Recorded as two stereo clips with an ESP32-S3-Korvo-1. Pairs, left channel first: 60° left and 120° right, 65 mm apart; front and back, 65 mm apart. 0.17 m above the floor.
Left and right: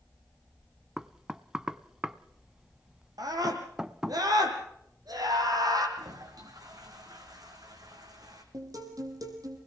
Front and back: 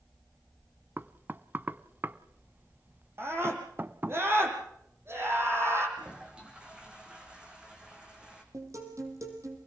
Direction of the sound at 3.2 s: 130° right.